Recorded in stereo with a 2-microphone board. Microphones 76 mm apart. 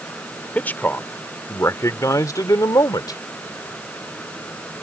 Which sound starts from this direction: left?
A man speaking, at 0.6 s.